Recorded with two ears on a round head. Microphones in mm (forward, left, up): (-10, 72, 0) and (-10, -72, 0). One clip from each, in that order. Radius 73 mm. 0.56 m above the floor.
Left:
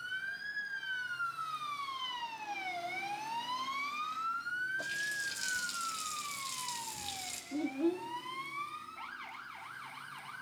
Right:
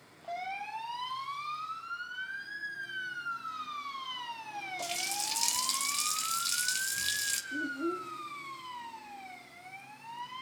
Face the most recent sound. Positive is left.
turn(degrees=50)  # may be behind; listen again after turning